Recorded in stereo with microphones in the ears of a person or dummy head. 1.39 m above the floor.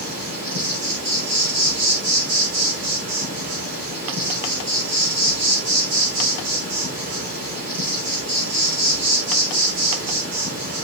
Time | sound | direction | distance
0.0 | an insect | 65° right (ahead or behind) | 5.5 m